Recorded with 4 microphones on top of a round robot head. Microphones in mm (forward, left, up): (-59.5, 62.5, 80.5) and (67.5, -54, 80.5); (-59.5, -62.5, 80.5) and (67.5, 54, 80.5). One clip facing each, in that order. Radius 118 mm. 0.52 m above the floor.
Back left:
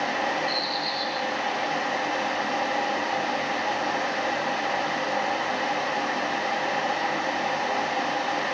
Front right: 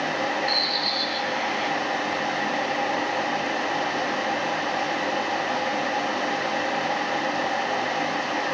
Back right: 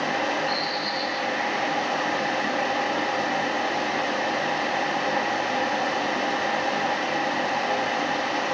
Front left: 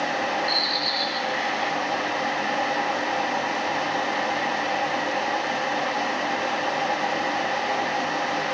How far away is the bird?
About 3 m.